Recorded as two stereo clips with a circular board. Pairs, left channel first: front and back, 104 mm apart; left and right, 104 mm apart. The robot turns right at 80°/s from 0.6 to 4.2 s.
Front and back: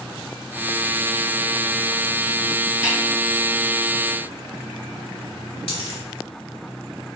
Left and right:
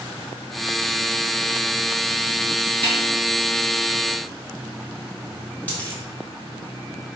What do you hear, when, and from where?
2.8 s a snare drum: 105° right, 1.9 m; by 3.0 s 90° right, 1.9 m
5.7 s a dropped coin: 15° left, 1.3 m